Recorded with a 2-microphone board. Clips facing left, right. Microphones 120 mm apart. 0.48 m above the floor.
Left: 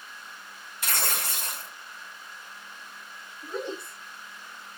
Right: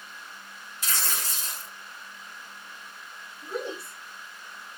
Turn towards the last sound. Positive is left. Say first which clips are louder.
# even
turn(degrees=-10)  # may be behind; listen again after turning